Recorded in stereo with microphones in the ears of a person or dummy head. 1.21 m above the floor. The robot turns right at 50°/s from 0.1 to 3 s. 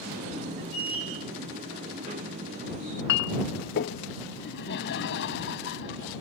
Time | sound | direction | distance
2.8 | a clink | 65° left (ahead or behind) | ?
4.4 | laughter | 70° left (ahead or behind) | ?